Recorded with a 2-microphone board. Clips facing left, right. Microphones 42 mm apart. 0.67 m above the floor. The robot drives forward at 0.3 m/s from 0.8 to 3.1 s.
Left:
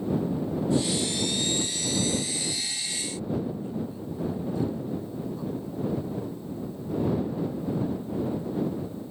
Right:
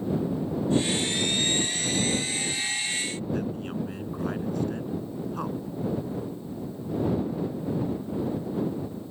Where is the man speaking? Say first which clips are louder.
Left 1 dB; 65° right (ahead or behind).